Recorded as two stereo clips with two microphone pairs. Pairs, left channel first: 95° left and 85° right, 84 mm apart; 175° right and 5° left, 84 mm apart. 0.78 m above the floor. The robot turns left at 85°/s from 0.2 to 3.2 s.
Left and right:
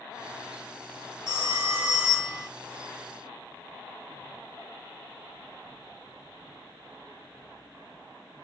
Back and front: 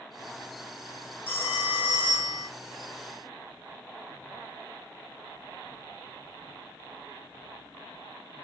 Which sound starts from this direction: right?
A phone ringing, at 1.3 s.